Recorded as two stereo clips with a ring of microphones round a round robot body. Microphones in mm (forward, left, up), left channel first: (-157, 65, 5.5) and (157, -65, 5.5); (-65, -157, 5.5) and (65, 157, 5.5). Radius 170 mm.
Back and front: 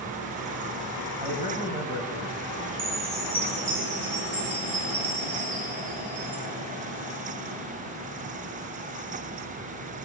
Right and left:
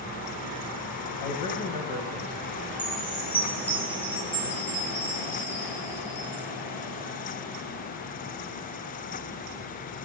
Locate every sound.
1.2 s a man speaking: 95° right, 1.8 m
2.8 s a chime: 30° right, 5 m